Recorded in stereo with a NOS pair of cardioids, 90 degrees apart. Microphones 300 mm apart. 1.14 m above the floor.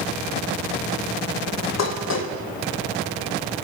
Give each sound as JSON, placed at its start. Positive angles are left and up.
{"t": 1.8, "sound": "dishes clattering", "azimuth_deg": 60, "distance_m": 3.5}